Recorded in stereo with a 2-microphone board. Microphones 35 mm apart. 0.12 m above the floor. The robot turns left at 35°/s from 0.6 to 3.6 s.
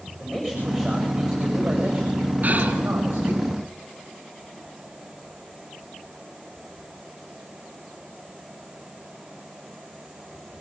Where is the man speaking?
20° left, 9 m; by 3.4 s 80° right, 9 m.